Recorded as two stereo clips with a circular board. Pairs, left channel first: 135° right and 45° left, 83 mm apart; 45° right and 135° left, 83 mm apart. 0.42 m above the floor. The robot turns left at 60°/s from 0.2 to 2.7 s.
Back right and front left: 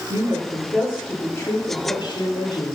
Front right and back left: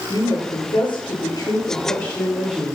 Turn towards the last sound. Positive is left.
turn(degrees=-145)